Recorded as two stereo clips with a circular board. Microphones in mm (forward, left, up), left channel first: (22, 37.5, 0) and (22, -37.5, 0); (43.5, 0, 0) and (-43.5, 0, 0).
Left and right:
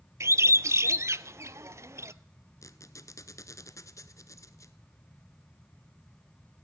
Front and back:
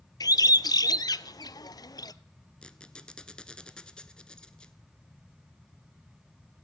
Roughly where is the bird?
Ahead right.